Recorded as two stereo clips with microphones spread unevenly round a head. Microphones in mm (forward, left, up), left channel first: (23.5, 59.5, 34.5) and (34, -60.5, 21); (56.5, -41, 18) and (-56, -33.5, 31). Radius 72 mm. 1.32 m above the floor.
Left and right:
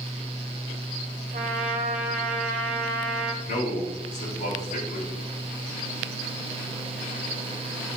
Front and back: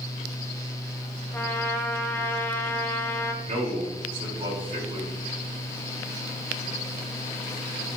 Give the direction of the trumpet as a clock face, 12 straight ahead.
3 o'clock.